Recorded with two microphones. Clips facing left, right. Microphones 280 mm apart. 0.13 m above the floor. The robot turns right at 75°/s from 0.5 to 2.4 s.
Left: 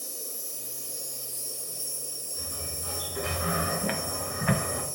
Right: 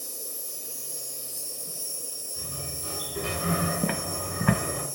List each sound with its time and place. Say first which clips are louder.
0.0 s an insect: even; 125° right, 1.0 m; by 5.0 s 20° left, 1.0 m
2.4 s a sliding door: right 1 dB; 40° right (ahead or behind), 0.9 m
3.8 s footsteps: right 2 dB; 55° right (ahead or behind), 0.5 m